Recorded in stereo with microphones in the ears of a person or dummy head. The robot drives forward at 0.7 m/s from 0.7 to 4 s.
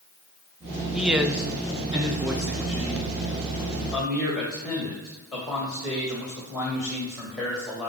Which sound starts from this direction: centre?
A man speaking, at 0.9 s.